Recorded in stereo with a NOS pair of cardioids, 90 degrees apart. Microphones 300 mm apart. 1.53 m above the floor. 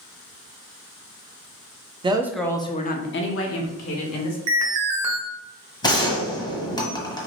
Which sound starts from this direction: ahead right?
An alarm, at 4.5 s.